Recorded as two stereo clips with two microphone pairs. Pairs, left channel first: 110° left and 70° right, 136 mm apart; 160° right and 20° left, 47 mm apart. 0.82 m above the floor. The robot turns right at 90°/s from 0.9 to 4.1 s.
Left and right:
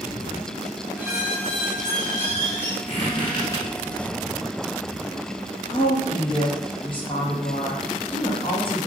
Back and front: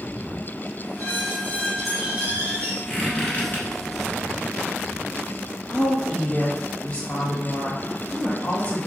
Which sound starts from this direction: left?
A squeak, at 2.9 s.